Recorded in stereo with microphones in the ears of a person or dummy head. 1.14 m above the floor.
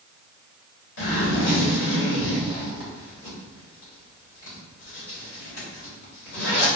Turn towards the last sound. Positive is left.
turn(degrees=75)  # may be behind; listen again after turning